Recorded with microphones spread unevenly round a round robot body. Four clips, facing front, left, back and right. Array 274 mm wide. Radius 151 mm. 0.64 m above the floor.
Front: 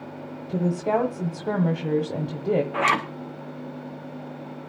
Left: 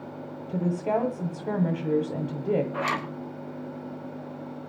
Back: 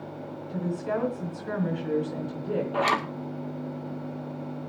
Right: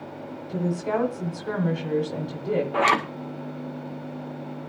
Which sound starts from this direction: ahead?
A woman speaking, at 0.5 s.